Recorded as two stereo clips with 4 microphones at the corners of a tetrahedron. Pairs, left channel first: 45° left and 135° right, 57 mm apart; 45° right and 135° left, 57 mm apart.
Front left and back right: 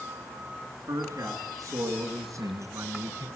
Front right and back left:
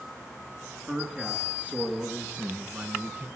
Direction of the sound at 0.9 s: 155° right.